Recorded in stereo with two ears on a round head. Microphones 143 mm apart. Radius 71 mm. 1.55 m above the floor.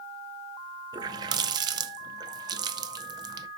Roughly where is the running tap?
Right.